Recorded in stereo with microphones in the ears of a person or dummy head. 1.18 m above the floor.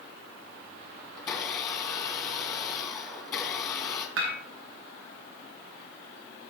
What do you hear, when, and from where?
1.2 s a blender: 20° left (ahead or behind), 2.5 m
4.2 s dishes clattering: 75° right (ahead or behind), 5 m